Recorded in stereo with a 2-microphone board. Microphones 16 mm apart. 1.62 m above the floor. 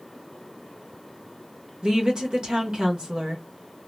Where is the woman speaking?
65° right (ahead or behind), 1.1 m.